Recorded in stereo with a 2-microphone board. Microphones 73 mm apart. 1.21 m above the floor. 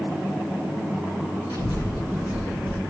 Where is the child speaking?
65° left (ahead or behind), 3 m; by 2.8 s 75° left (ahead or behind), 3 m.